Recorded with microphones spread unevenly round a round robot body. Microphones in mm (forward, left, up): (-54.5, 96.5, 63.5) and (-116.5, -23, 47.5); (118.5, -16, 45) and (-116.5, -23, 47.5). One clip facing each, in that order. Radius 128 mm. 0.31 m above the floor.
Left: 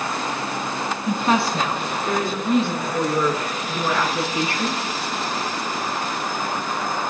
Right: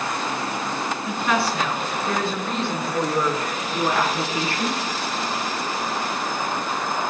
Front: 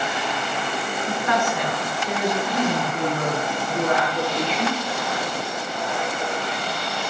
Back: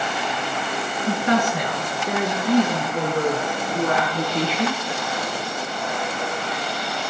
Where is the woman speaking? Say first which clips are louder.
Left 3 dB, back 5 dB; 120° left, 5 m; by 4.8 s 175° right, 6 m.